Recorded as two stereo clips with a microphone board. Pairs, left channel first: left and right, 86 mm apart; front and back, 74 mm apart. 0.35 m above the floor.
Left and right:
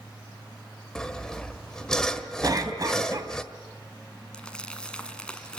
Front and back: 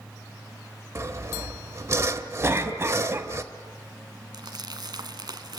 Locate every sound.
0.9 s sawing: 170° left, 1.4 m
2.4 s a cough: 125° right, 3 m
4.3 s crumpling: 170° left, 1.5 m